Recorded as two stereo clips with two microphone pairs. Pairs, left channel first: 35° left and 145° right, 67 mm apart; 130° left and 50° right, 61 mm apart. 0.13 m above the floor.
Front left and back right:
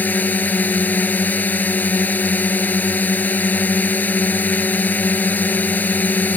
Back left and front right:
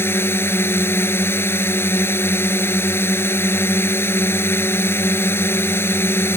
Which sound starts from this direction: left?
A drone, at 0.0 s.